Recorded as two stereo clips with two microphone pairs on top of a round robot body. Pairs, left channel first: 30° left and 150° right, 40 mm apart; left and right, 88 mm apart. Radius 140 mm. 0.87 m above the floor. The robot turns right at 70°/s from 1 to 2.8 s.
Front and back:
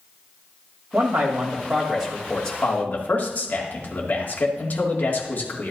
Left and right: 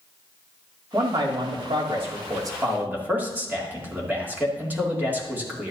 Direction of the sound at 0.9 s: 145° right.